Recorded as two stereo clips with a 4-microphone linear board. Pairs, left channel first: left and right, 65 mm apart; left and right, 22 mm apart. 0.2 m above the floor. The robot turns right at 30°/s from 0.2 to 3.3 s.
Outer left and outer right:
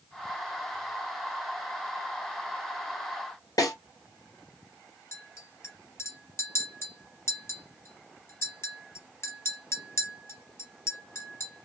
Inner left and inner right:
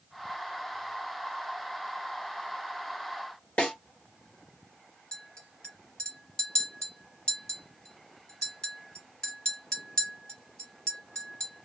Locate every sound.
3.6 s a snare drum: 75° left (ahead or behind), 2.0 m
5.1 s a clink: 45° left (ahead or behind), 1.4 m